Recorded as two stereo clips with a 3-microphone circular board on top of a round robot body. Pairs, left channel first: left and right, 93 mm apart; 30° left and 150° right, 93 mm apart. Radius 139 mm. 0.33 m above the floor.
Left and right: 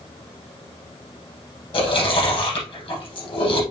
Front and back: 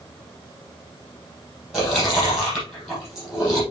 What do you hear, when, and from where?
1.7 s chewing: 120° left, 6 m